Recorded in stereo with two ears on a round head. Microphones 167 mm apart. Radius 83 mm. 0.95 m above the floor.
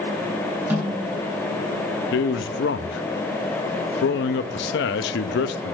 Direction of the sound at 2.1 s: 65° left (ahead or behind).